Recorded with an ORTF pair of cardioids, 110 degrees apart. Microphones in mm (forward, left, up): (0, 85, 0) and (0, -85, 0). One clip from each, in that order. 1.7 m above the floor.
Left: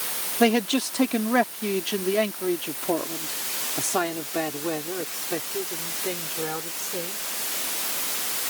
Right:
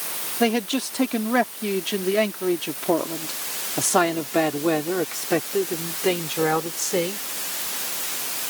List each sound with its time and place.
0.4 s a man speaking: 5° left; by 7.3 s 65° right